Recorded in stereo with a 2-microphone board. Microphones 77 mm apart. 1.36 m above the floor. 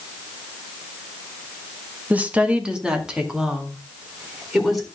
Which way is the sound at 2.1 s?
20° right (ahead or behind).